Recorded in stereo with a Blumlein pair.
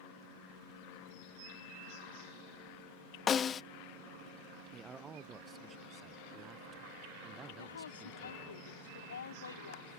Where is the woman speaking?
70° left.